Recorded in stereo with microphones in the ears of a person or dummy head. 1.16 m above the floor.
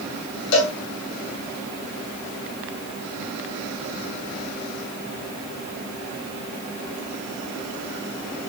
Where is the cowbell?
80° left, 6.5 m.